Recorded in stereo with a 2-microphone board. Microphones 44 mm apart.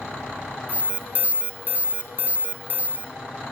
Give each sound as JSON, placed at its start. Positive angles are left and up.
{"t": 0.7, "sound": "an alarm", "side_deg": -40, "distance_m": 3.0}